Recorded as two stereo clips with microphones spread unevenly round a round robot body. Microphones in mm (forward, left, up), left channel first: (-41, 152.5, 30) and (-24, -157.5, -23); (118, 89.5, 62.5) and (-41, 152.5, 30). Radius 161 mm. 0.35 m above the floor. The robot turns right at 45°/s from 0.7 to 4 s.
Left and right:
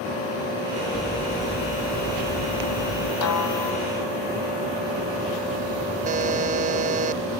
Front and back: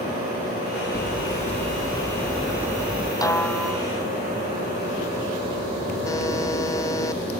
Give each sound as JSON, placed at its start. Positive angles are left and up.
{"t": 0.9, "sound": "hammering", "azimuth_deg": 5}
{"t": 3.2, "sound": "a snare drum", "azimuth_deg": 50}
{"t": 6.0, "sound": "a buzzer", "azimuth_deg": -95}